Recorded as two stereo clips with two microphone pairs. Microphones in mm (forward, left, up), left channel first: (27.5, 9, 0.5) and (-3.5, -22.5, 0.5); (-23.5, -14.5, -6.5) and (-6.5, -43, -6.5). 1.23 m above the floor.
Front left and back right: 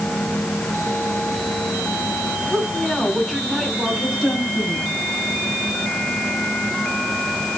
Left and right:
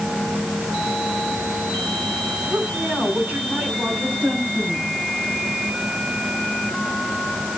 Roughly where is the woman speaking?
Ahead right.